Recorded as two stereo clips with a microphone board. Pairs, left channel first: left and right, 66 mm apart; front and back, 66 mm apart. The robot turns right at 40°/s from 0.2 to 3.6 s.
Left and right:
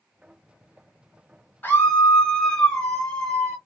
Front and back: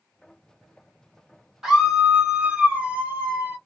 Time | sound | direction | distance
1.6 | a scream | 105° left | 1.3 m